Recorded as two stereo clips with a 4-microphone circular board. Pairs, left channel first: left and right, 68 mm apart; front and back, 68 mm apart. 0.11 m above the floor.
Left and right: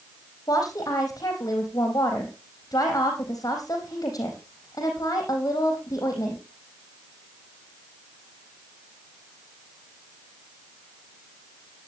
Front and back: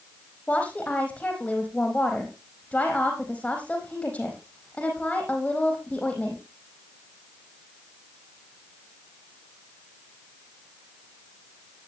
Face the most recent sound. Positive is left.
turn(degrees=70)